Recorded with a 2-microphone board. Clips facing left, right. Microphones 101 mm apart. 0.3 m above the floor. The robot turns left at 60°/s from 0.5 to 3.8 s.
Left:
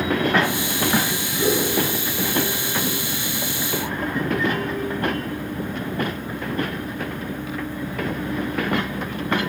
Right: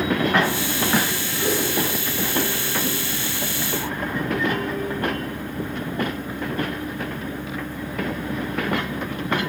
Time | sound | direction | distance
1.4 | a whoosh | 45° left (ahead or behind) | 3.5 m